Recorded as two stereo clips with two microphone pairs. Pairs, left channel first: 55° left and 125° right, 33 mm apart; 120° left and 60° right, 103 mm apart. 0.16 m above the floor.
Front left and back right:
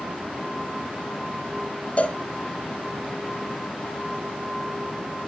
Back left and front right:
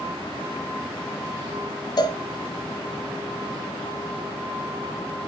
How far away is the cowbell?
About 0.5 m.